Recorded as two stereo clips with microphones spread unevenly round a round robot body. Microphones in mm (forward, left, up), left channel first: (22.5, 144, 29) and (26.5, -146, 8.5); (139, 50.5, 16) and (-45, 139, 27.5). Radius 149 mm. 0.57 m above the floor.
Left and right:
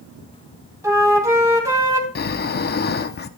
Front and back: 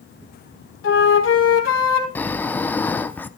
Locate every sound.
0.8 s a flute: 10° right, 3 m
2.1 s snoring: 45° left, 0.8 m